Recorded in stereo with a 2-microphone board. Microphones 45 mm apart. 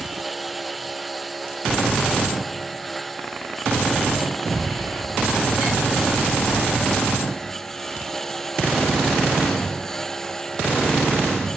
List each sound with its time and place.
0.0 s a lawn mower: centre (ahead or behind); by 11.6 s 15° left (ahead or behind)